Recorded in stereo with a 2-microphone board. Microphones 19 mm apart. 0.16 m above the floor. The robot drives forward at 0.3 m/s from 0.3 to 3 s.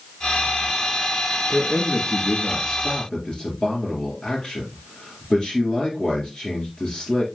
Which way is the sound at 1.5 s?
45° left (ahead or behind).